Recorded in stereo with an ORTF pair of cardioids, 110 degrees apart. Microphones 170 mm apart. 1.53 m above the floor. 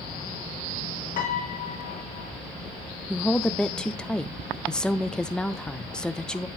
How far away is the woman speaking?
About 0.8 m.